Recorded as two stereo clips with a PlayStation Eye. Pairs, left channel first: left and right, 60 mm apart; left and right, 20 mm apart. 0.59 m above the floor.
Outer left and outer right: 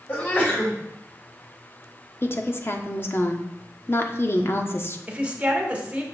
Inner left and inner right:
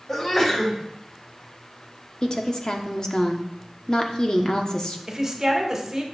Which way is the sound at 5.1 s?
20° right (ahead or behind).